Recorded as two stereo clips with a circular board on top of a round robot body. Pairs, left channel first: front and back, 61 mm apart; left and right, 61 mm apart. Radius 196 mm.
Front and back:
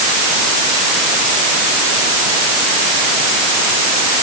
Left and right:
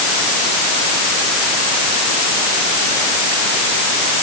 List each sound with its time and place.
Only background noise.